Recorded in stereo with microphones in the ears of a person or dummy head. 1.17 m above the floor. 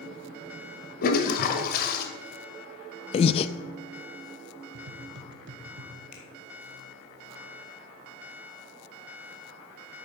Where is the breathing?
25° left (ahead or behind), 0.6 m.